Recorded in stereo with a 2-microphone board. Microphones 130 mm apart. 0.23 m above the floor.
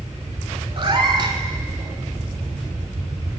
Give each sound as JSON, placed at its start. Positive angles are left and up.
{"t": 0.8, "sound": "a cat meowing", "side_deg": -40, "distance_m": 0.7}